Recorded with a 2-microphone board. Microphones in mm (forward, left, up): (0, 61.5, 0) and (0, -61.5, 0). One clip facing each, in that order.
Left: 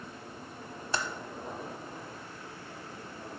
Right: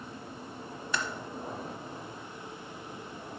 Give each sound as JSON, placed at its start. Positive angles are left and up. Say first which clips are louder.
{"t": 0.9, "sound": "typing on a keyboard", "louder": "even", "side_deg": 35, "distance_m": 0.9}